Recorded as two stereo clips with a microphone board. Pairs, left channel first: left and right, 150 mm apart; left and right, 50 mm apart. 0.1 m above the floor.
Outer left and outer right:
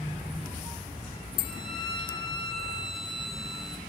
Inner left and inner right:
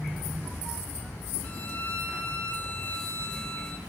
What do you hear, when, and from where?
1.4 s a violin: 35° left (ahead or behind), 1.6 m